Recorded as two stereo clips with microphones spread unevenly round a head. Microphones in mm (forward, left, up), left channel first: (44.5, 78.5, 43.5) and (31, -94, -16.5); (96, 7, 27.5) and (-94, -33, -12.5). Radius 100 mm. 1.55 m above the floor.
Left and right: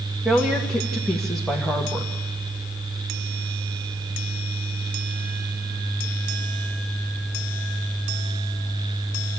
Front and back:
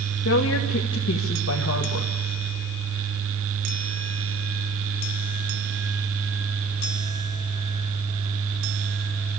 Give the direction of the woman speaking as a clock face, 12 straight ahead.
12 o'clock.